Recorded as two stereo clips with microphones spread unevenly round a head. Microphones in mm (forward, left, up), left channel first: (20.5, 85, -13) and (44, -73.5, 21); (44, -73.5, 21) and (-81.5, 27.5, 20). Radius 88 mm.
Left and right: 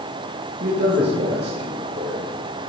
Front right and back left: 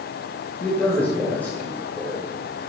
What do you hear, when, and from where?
0.6 s a man speaking: 120° right, 4 m